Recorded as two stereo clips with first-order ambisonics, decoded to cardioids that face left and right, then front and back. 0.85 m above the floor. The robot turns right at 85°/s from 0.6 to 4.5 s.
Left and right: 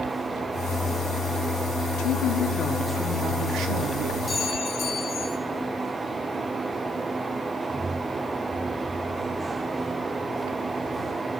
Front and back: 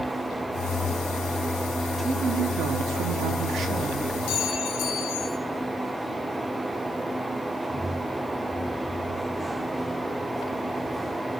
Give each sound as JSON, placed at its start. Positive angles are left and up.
{"t": 2.0, "sound": "a woman speaking", "azimuth_deg": 95, "distance_m": 1.3}
{"t": 4.3, "sound": "a clink", "azimuth_deg": 5, "distance_m": 2.0}